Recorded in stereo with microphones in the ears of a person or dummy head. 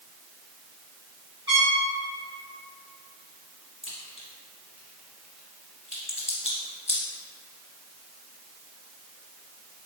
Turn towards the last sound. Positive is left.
turn(degrees=-5)  # may be behind; listen again after turning